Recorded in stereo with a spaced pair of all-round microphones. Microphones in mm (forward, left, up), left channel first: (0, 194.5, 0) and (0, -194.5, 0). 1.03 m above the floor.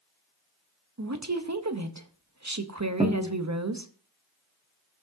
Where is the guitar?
10° right (ahead or behind), 1.2 m.